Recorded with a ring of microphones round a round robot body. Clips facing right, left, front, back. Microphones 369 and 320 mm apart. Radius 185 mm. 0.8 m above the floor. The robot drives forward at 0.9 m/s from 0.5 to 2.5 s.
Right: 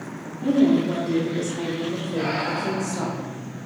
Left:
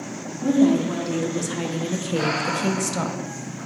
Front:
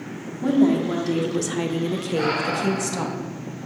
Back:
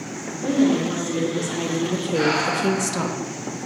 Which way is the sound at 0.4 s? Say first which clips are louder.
Even, front 1 dB; 25° left.